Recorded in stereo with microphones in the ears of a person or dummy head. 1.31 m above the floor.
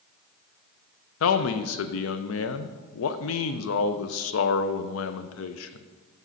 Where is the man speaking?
70° left (ahead or behind), 0.5 m.